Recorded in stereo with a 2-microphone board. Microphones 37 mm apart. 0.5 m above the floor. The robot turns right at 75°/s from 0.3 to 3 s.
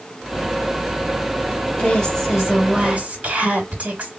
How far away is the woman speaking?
About 2.5 m.